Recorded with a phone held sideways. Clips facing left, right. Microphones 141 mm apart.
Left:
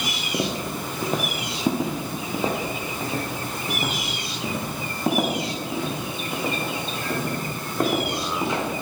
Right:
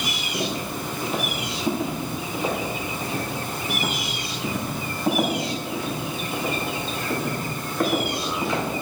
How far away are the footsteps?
About 2 m.